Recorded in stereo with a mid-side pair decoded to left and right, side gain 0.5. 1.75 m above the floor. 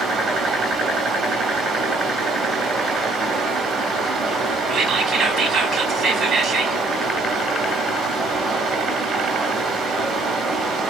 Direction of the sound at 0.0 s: 65° right.